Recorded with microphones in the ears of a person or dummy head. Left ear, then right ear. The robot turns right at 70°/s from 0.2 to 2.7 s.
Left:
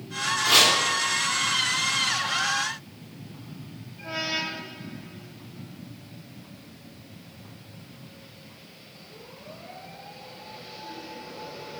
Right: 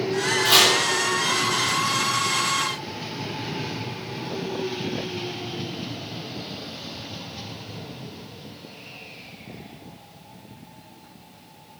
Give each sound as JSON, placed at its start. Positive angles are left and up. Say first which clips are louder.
{"t": 0.5, "sound": "chopping", "louder": "right 1 dB", "side_deg": -15, "distance_m": 2.5}